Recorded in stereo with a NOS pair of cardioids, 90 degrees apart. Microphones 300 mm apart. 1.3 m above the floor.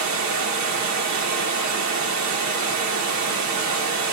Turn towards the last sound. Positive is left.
turn(degrees=-65)